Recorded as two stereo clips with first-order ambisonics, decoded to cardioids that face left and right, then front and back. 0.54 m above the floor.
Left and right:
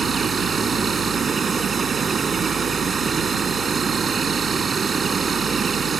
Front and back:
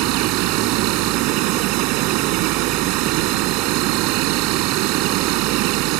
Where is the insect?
160° right.